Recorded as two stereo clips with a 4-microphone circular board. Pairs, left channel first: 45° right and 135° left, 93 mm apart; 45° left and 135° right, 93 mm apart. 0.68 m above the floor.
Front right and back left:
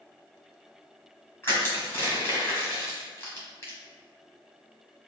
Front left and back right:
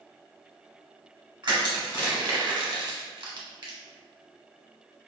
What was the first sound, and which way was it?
Crushing, 105° right.